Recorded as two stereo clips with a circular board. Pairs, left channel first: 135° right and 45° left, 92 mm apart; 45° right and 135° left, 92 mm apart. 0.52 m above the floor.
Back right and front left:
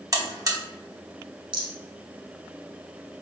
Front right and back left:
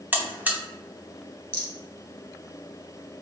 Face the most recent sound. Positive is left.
turn(degrees=20)